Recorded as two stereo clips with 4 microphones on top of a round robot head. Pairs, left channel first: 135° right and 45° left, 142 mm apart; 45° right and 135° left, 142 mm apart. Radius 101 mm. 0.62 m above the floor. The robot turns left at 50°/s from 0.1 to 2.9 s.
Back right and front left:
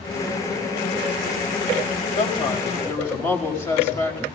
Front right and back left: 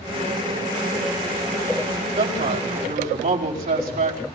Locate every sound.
2.2 s a man speaking: 165° right, 4.5 m; by 4.2 s 155° left, 4.5 m